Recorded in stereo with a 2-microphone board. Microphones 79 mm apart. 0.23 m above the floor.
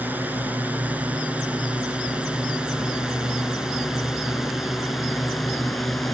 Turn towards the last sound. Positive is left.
turn(degrees=5)  # may be behind; listen again after turning